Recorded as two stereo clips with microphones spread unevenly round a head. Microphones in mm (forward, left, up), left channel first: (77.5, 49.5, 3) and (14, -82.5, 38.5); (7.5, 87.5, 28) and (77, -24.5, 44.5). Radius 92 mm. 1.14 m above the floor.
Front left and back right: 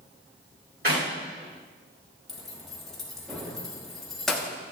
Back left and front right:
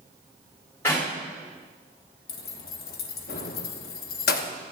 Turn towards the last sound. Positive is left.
turn(degrees=160)